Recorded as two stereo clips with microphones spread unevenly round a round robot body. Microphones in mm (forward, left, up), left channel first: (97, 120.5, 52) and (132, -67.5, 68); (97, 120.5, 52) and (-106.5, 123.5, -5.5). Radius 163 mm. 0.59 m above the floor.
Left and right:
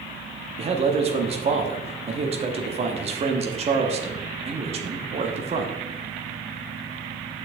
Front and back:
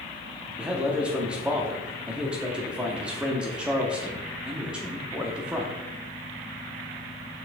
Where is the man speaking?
125° right, 0.8 m.